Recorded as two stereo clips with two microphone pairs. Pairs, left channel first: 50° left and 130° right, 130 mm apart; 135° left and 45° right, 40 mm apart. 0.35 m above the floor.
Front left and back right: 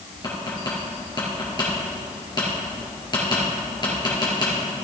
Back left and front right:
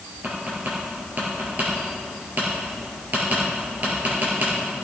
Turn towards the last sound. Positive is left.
turn(degrees=-5)